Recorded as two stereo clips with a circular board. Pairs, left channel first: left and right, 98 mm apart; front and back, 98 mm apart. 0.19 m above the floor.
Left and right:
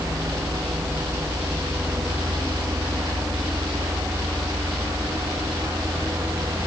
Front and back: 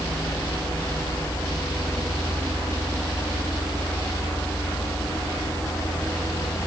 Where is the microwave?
I don't hear a microwave.